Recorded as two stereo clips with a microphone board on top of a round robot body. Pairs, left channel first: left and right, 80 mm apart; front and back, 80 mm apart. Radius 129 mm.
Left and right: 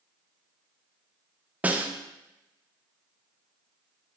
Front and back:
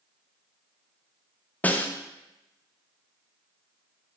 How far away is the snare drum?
About 0.5 m.